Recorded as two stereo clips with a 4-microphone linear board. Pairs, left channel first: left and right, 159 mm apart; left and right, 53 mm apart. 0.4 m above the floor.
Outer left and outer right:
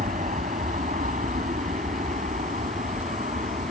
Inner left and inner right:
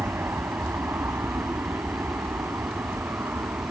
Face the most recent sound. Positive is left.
turn(degrees=-50)  # may be behind; listen again after turning